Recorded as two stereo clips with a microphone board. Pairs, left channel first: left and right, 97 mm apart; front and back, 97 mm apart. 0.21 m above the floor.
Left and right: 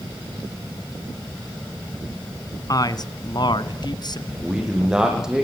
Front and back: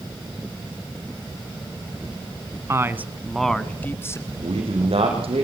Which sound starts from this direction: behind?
A man speaking, at 4.3 s.